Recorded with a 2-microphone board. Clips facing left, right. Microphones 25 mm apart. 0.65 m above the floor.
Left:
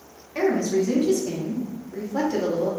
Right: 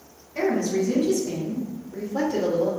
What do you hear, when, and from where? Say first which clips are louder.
0.3 s a woman speaking: left 1 dB; 55° left (ahead or behind), 1.6 m; by 2.7 s 15° left (ahead or behind), 0.9 m